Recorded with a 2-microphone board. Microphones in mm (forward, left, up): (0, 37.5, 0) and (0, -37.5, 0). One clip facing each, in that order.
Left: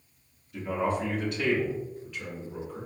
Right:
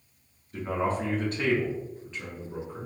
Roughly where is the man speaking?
Right.